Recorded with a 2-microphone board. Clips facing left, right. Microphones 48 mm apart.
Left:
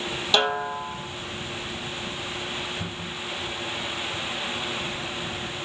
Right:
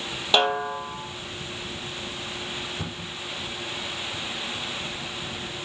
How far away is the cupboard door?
About 6.5 m.